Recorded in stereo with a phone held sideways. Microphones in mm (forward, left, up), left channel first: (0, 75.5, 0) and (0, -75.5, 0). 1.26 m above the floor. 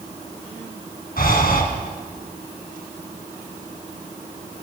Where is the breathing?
75° left (ahead or behind), 4 m.